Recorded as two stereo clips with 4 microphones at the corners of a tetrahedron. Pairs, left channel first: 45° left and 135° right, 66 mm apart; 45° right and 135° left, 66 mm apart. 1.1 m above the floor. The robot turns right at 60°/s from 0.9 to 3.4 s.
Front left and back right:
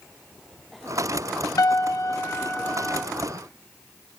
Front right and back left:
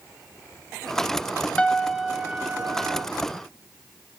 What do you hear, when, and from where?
1.6 s a piano: 25° left, 1.0 m; by 3.0 s 115° left, 1.0 m